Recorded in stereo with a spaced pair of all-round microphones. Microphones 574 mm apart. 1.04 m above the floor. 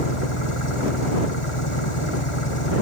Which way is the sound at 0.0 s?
55° left (ahead or behind).